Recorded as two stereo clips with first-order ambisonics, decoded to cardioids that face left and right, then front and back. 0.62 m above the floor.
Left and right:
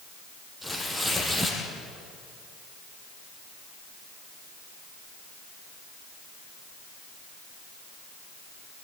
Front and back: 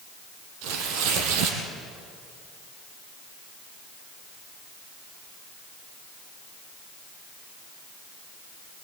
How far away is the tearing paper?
About 3.5 m.